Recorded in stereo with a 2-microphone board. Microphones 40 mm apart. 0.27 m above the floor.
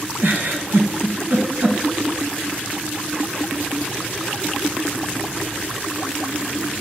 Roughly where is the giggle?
Right.